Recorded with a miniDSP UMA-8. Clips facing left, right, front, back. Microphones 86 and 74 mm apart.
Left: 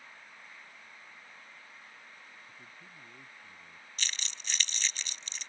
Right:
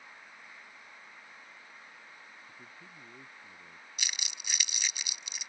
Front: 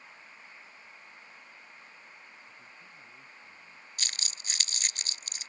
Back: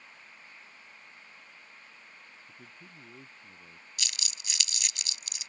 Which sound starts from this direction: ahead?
Crumpling, at 4.0 s.